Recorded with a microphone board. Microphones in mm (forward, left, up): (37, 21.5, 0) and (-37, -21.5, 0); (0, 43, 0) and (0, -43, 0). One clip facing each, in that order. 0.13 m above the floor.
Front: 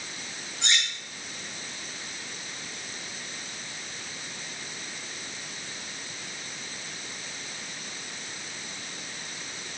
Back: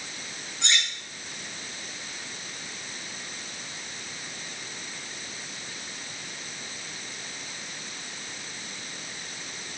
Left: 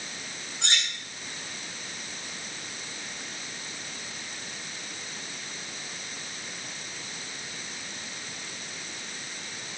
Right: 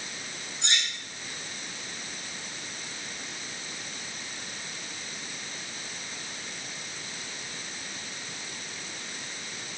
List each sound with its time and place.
0.6 s cutlery clinking: 120° left, 4.5 m